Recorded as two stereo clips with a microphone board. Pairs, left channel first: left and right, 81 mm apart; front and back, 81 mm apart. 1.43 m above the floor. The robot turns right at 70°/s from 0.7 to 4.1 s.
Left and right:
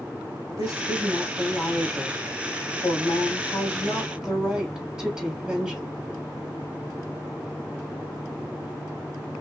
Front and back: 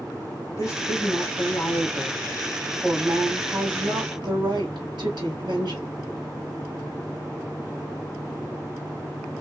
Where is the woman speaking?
50° right, 3 m; by 5.9 s 175° right, 3 m.